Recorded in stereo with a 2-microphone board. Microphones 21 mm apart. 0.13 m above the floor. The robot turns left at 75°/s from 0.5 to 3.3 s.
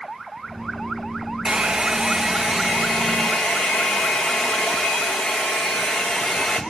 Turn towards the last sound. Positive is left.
turn(degrees=110)